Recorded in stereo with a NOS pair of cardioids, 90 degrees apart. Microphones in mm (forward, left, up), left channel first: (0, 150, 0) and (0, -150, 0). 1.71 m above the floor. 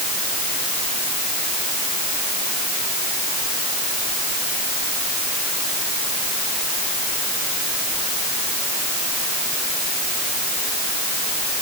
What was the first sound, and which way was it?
Only background noise.